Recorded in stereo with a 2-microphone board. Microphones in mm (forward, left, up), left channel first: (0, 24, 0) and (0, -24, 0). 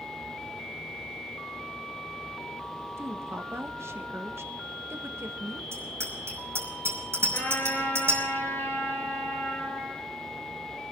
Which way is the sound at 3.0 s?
70° right (ahead or behind).